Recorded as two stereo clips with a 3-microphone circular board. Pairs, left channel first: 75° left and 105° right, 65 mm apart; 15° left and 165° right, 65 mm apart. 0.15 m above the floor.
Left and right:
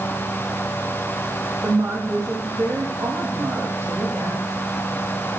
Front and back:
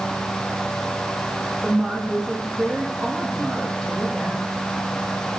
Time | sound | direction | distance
1.6 | a woman speaking | 75° right | 5.5 m